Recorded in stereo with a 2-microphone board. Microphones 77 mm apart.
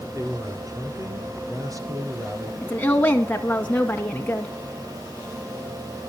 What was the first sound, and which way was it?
A man speaking, 50° right (ahead or behind).